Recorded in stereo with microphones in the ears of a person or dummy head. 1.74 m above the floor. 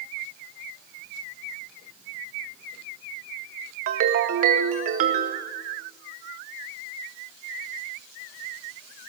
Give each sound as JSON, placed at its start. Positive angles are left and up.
{"t": 3.9, "sound": "a ringtone", "side_deg": -45, "distance_m": 1.4}